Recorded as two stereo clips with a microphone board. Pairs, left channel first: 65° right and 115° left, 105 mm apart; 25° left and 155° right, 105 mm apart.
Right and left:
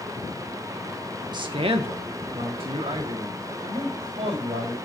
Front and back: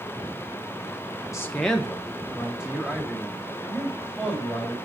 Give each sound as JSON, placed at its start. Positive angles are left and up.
{"t": 1.3, "sound": "a man speaking", "azimuth_deg": 75, "distance_m": 0.5}